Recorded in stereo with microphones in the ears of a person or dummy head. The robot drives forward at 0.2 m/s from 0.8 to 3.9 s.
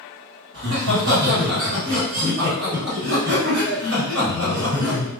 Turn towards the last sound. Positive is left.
turn(degrees=-50)  # may be behind; listen again after turning